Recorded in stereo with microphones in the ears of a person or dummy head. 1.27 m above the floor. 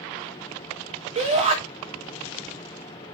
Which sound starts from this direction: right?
A shout, at 1.1 s.